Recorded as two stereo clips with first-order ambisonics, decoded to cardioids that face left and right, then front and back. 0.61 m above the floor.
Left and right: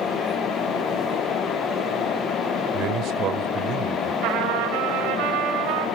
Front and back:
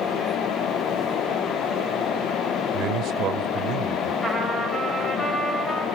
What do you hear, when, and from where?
2.7 s a man speaking: 135° right, 1.8 m
4.2 s a trumpet: 90° right, 3.5 m